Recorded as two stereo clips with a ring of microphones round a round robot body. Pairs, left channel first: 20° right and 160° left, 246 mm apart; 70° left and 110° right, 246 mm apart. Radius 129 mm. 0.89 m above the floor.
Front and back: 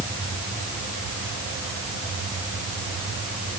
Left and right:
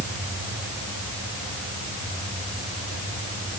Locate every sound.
Only background noise.